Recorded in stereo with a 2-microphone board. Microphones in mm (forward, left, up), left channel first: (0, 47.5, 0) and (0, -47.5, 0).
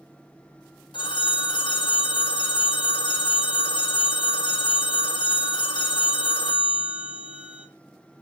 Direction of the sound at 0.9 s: 55° left (ahead or behind).